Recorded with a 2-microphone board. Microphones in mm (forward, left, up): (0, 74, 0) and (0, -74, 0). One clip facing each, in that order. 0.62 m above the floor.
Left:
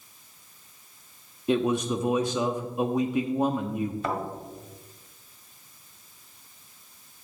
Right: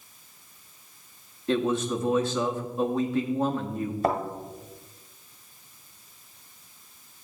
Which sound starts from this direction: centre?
A man speaking, at 1.5 s.